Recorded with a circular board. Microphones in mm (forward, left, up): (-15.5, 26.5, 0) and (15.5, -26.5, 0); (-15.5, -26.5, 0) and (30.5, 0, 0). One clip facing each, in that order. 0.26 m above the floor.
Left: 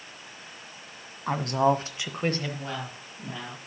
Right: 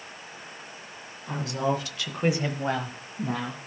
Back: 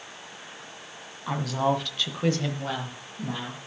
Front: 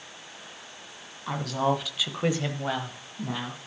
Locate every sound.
1.3 s a woman speaking: 125° left, 1.7 m; by 3.6 s 45° right, 2.5 m